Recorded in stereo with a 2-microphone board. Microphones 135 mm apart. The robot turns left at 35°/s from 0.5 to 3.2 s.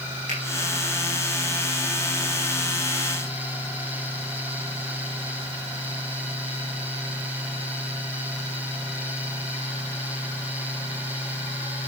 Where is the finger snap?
75° right (ahead or behind), 6 m.